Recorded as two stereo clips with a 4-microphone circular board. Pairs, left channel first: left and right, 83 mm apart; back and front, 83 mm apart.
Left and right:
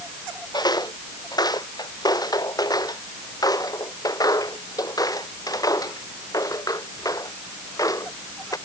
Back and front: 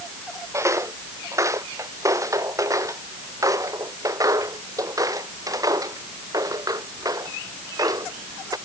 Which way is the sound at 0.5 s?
55° left.